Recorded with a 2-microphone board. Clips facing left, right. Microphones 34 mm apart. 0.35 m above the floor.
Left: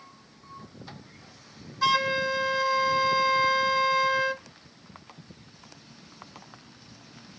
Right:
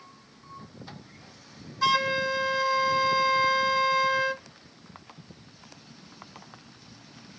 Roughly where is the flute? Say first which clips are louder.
Even; centre.